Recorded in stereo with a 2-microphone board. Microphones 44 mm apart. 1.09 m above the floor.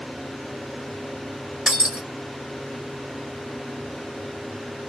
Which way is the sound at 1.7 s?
20° right (ahead or behind).